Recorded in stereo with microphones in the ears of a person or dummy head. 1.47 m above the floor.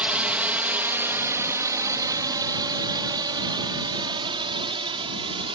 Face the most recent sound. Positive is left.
turn(degrees=-30)  # may be behind; listen again after turning